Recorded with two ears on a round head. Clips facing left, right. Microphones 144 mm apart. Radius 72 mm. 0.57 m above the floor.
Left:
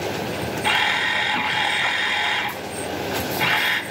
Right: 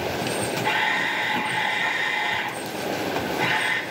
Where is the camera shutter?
65° left (ahead or behind), 1.4 m.